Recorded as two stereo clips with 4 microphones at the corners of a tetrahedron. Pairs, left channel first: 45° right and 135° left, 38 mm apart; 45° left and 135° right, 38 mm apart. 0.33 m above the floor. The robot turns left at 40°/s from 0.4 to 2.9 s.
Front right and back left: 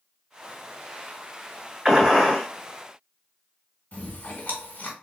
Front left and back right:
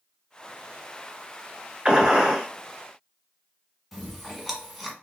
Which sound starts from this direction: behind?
A gunshot, at 1.9 s.